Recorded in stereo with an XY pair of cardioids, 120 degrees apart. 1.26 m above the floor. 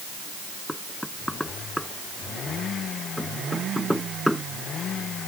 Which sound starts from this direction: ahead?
Knocking, at 0.7 s.